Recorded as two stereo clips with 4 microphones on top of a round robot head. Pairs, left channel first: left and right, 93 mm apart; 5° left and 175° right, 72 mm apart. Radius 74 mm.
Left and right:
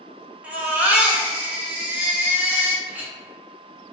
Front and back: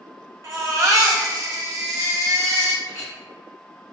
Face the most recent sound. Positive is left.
turn(degrees=-20)